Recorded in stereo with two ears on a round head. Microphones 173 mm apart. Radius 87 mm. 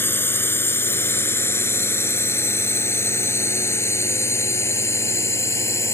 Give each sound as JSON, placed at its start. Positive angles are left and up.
{"t": 0.0, "sound": "a drone", "side_deg": 10}